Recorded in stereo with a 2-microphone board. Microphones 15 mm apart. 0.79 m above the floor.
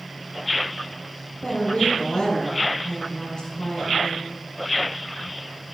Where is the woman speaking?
65° left (ahead or behind), 4.5 m.